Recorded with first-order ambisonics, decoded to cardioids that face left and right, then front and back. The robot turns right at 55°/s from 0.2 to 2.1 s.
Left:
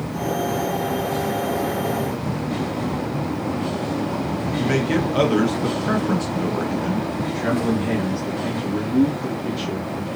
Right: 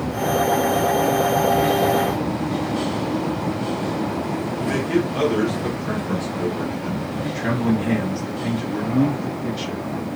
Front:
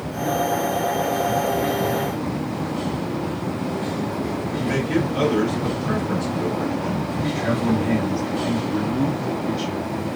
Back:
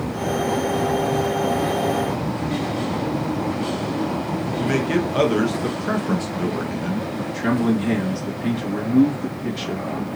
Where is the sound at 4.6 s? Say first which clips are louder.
Left 1 dB, back 2 dB; 145° left, 0.8 m.